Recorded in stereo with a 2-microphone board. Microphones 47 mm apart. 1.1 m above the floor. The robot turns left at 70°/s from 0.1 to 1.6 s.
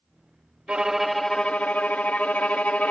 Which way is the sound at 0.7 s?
155° right.